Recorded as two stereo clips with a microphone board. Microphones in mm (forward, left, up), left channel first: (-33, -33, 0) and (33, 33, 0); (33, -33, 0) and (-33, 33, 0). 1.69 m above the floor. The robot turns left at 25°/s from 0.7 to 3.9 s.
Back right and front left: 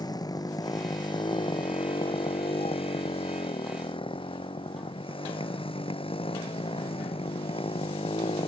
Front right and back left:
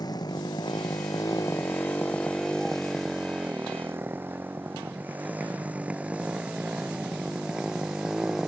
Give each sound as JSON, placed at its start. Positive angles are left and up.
{"t": 0.0, "sound": "a motorcycle", "azimuth_deg": -90}